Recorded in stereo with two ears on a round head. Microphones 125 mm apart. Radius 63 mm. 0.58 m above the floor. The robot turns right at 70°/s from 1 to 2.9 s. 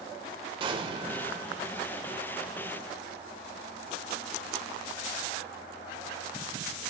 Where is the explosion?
145° right, 0.8 m; by 1.5 s 110° right, 0.8 m.